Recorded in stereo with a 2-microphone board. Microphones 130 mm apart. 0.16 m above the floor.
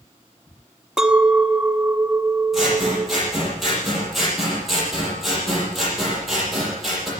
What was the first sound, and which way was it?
A clink, 5° right (ahead or behind).